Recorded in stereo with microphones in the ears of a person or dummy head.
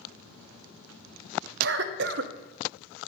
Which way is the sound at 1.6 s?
65° right (ahead or behind).